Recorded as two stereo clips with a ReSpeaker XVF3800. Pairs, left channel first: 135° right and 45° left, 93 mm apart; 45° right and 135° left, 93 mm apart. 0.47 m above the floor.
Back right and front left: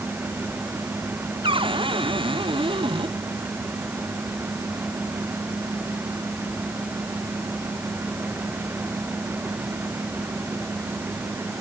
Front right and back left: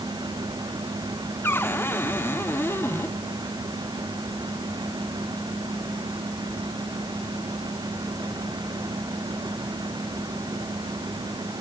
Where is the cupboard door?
20° left.